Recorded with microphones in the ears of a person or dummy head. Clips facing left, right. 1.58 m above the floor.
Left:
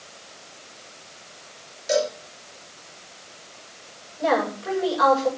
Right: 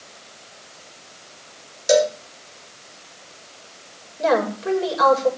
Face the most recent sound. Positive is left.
turn(degrees=-40)  # may be behind; listen again after turning